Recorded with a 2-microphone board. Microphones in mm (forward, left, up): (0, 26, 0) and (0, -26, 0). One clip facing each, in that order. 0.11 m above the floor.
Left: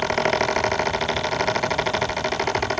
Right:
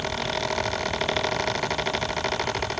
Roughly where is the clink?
No clink in this recording.